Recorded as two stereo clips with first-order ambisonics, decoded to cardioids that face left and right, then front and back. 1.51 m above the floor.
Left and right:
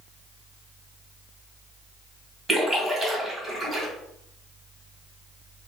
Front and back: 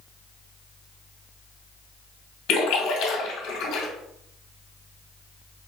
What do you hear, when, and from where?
2.5 s a splash: 15° right, 2 m